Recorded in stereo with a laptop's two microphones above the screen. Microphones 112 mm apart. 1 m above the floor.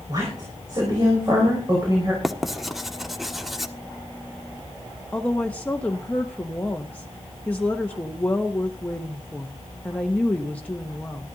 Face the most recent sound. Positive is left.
turn(degrees=15)  # may be behind; listen again after turning